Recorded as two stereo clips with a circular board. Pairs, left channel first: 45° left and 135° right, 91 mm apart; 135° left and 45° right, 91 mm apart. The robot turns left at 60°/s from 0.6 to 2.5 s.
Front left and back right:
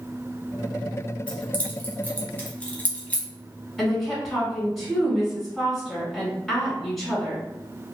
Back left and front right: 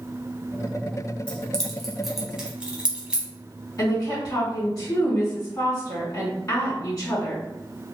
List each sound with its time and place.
1.3 s keys jangling: 85° left, 0.9 m; by 3.3 s 10° left, 0.9 m
3.8 s a woman speaking: 125° left, 1.7 m